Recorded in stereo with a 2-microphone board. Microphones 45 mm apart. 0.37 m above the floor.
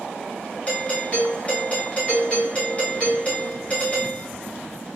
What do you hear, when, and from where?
0.7 s a doorbell: 30° left (ahead or behind), 1.8 m